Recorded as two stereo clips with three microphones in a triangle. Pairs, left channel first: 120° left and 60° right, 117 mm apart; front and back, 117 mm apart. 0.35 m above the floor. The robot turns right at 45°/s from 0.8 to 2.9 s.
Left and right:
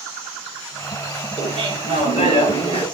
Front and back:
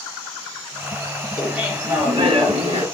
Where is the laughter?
90° left, 5.5 m; by 2.9 s 160° left, 5.5 m.